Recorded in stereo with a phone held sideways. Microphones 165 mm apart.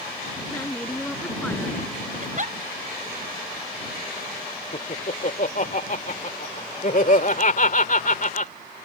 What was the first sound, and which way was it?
A woman speaking, 10° left (ahead or behind).